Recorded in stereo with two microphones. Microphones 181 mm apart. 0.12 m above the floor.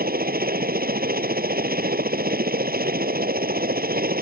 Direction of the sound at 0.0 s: 55° right (ahead or behind).